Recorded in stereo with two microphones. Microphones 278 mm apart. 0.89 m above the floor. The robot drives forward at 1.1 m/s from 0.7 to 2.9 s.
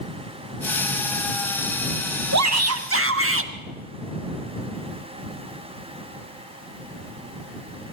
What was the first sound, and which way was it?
A shout, 75° right (ahead or behind).